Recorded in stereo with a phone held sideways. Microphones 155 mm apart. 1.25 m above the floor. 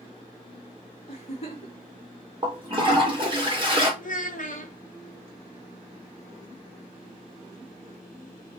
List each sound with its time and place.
1.1 s a giggle: 40° left (ahead or behind), 1.9 m
2.4 s a toilet flushing: 35° right (ahead or behind), 1.7 m
4.0 s a child speaking: 55° left (ahead or behind), 1.1 m